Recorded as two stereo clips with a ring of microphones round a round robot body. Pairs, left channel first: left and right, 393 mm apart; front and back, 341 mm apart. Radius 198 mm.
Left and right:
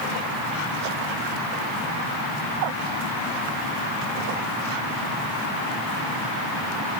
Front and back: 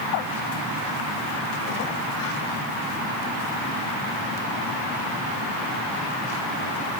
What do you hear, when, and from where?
Only background noise.